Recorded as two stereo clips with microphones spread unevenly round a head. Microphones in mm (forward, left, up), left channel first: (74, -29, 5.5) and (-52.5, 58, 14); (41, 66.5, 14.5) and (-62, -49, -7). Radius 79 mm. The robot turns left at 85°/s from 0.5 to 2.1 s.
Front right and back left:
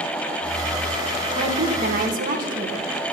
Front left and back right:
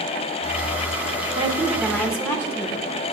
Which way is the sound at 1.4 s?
170° right.